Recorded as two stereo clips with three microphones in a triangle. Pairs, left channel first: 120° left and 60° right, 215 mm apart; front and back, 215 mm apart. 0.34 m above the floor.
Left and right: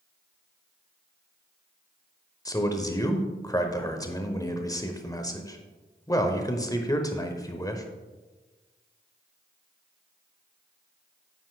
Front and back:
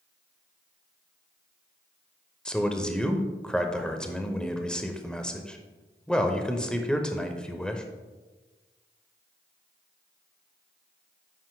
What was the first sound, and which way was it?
A man speaking, 80° left.